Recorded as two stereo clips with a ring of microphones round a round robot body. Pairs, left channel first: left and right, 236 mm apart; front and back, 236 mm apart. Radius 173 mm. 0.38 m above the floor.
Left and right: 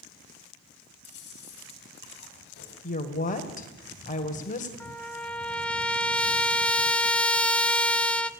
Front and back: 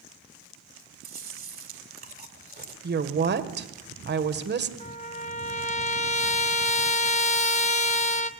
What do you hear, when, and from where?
1.0 s chewing: 135° left, 2.5 m
2.8 s a woman speaking: 145° left, 1.6 m
4.8 s a trumpet: 10° left, 0.9 m